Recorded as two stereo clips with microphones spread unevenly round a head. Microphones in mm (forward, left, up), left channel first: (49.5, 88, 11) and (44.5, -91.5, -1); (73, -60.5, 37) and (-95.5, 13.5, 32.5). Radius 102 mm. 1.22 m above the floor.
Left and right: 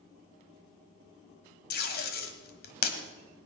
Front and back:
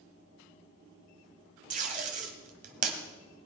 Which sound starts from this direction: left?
Tape being pulled, at 1.7 s.